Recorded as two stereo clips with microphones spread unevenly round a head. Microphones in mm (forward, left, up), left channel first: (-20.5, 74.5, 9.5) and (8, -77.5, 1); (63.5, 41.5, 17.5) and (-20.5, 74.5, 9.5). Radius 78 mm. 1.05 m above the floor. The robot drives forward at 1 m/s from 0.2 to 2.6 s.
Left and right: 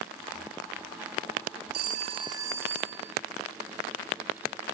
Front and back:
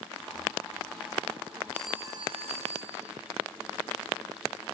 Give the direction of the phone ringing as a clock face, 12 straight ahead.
3 o'clock.